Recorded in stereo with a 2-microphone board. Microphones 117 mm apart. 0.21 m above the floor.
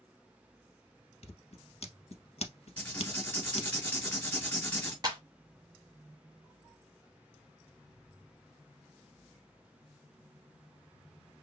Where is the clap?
35° right (ahead or behind), 1.0 m.